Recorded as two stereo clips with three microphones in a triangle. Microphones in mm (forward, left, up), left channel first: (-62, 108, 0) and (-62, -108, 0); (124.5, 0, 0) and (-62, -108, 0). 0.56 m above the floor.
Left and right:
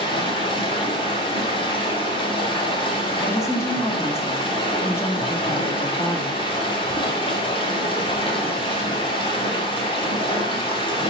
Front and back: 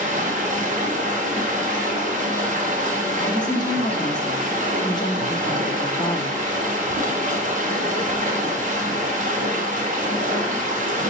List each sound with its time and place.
0.0 s running water: 160° left, 1.6 m
3.2 s a woman speaking: 40° left, 0.8 m